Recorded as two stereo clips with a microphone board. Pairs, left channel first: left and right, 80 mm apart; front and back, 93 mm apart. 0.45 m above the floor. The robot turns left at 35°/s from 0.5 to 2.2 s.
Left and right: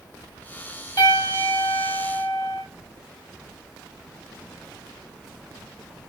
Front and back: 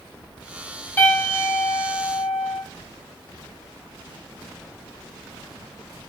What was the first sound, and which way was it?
A piano, 65° left.